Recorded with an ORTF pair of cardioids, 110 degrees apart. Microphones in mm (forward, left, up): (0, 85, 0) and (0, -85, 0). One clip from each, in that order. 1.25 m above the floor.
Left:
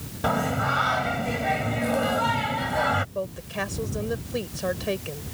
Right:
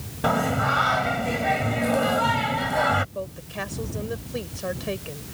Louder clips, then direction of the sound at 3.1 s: Left 2 dB; 15° left.